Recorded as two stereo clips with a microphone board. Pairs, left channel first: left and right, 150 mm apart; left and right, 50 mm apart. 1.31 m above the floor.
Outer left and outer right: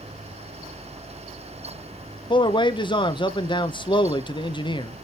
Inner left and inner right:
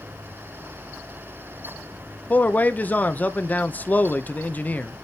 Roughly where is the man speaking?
Left.